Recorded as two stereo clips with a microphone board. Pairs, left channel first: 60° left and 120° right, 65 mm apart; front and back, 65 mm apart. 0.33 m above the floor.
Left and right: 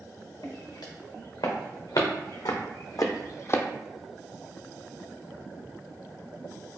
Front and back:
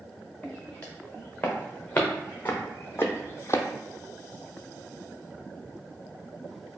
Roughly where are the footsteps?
Left.